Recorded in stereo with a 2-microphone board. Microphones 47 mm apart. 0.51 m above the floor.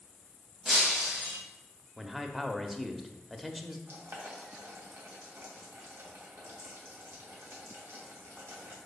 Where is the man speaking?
5° right (ahead or behind), 0.8 m.